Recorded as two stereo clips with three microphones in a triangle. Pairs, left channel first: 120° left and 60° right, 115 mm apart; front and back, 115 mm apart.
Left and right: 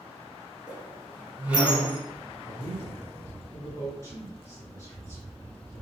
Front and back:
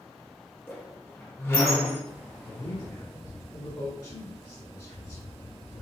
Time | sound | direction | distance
0.7 | a squeak | 5° right | 1.1 m
2.5 | a man speaking | 20° right | 1.9 m